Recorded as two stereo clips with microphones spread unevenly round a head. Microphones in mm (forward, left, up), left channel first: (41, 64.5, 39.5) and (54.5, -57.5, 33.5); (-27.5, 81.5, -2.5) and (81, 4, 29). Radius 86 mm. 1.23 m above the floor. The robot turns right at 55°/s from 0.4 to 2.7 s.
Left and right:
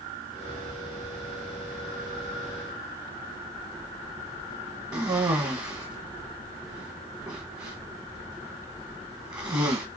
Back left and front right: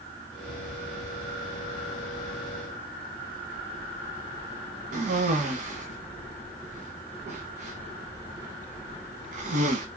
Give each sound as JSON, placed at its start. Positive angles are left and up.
{"t": 4.9, "sound": "a cough", "azimuth_deg": -20, "distance_m": 1.0}